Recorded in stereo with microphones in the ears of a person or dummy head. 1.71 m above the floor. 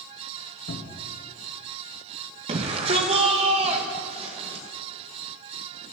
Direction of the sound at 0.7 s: 70° left (ahead or behind).